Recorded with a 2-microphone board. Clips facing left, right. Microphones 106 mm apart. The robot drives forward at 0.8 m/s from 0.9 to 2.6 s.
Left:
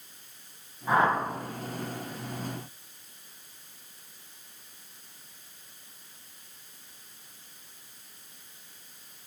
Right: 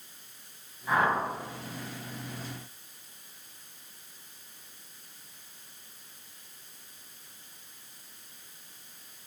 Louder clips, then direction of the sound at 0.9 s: Left 2 dB; 30° left (ahead or behind).